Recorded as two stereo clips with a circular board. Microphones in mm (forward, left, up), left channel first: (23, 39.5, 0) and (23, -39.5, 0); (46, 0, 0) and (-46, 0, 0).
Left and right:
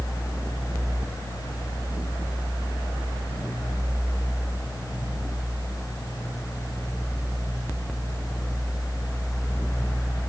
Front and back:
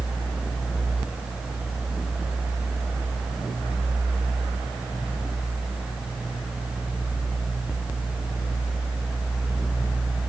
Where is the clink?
I don't hear a clink.